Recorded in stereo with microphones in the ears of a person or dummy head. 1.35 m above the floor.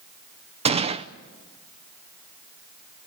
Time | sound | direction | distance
0.7 | a gunshot | 30° right (ahead or behind) | 0.6 m